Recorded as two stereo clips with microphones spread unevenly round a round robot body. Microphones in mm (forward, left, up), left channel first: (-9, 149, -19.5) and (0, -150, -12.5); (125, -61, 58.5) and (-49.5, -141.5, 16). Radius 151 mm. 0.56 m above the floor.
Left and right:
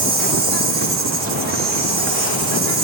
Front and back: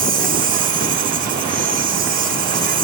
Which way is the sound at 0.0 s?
145° right.